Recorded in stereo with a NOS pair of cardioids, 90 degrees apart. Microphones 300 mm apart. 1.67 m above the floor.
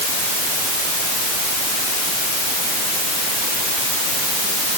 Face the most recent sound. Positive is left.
No sound to turn to.